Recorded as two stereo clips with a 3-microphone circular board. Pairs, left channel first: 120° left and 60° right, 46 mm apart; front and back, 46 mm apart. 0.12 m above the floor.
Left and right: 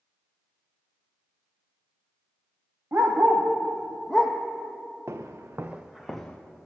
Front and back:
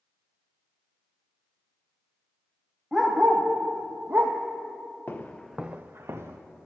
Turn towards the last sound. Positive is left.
turn(degrees=-160)